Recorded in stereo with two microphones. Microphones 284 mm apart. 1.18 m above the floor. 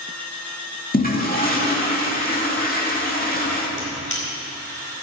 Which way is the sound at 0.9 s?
30° left (ahead or behind).